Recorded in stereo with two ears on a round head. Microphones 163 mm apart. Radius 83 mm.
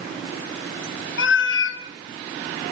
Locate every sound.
1.2 s a cat meowing: 75° left (ahead or behind), 1.7 m